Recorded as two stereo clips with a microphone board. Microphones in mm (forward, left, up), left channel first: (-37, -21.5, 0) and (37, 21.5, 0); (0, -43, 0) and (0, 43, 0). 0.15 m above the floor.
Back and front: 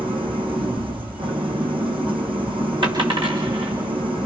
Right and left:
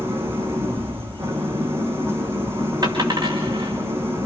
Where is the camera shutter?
No camera shutter in this recording.